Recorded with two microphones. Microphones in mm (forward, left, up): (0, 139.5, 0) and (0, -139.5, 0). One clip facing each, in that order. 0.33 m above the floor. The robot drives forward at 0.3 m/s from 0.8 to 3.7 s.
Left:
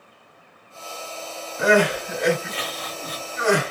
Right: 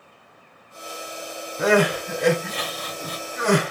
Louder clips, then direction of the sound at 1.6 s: Even; 45° right (ahead or behind).